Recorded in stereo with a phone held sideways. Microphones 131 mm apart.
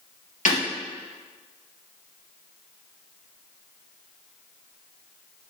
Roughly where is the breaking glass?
Left.